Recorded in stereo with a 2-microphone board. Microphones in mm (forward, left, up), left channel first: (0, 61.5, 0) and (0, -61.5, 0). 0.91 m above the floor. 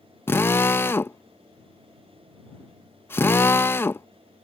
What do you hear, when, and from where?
0.3 s a drill: 20° left (ahead or behind)